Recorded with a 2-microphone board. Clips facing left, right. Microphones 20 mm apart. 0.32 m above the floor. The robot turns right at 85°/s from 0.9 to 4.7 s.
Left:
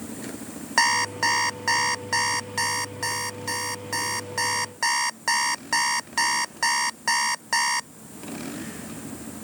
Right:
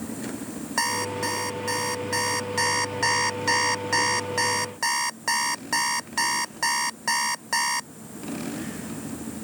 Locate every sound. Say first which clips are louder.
0.8 s an alarm clock: left 5 dB; 40° left; by 7.9 s 5° left